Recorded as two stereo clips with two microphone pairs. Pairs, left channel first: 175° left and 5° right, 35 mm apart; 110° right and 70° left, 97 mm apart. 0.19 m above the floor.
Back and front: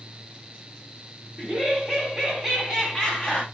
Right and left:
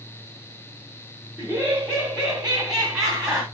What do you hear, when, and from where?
1.4 s laughter: 25° left, 1.7 m; by 3.4 s 160° left, 1.7 m